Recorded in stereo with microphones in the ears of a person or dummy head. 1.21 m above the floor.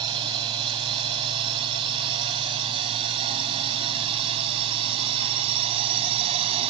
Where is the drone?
25° right (ahead or behind); by 6.7 s 30° right (ahead or behind).